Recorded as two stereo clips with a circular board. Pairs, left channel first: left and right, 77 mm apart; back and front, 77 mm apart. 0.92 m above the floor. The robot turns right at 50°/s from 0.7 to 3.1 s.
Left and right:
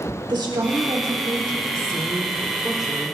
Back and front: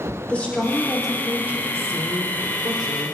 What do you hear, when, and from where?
0.3 s a woman speaking: 105° right, 3 m; by 3.2 s 15° left, 3 m